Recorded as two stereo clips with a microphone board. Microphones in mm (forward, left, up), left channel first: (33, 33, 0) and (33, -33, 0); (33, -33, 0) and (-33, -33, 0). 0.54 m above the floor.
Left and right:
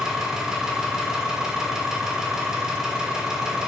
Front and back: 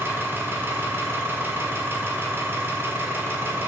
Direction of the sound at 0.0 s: 160° right.